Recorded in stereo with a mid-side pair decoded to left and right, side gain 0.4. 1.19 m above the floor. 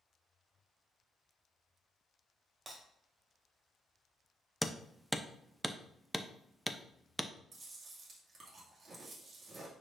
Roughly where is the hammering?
Ahead.